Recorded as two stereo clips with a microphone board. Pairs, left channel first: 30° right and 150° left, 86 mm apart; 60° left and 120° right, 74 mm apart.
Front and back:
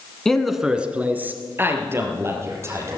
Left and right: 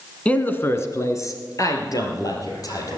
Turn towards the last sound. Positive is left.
turn(degrees=95)